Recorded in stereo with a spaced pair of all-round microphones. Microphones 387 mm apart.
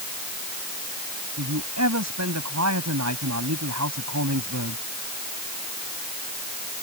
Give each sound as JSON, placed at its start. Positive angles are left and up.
{"t": 1.4, "sound": "a man speaking", "side_deg": -40}